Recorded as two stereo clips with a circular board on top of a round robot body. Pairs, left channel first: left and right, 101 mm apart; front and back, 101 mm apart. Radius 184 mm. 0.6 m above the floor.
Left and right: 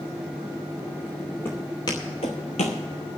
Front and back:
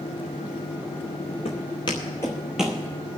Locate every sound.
1.4 s footsteps: 20° left, 0.8 m; by 2.8 s 105° left, 0.7 m